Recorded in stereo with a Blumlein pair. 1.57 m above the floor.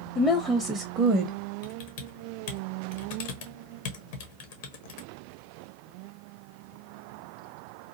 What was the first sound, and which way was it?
A woman speaking, 20° left.